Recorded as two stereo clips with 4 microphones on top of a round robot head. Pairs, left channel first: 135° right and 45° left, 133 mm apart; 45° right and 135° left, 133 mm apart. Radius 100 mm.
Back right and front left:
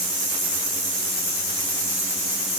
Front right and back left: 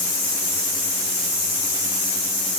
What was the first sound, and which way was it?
Only background noise.